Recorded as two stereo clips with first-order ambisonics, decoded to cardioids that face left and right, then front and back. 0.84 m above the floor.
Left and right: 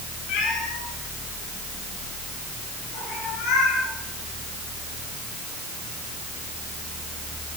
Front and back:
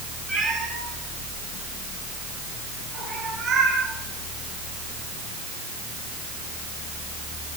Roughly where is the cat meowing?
Left.